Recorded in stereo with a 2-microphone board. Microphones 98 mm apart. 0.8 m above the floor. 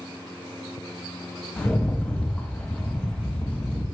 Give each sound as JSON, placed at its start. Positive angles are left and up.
{"t": 1.6, "sound": "a rattle", "side_deg": 10, "distance_m": 1.2}